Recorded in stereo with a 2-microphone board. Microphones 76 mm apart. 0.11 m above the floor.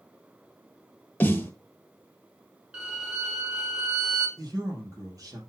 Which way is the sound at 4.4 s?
50° right (ahead or behind).